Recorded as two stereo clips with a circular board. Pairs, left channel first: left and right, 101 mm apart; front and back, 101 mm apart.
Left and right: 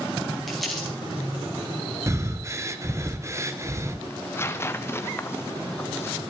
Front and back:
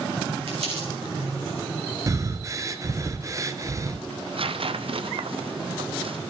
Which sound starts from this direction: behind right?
Breathing, at 2.1 s.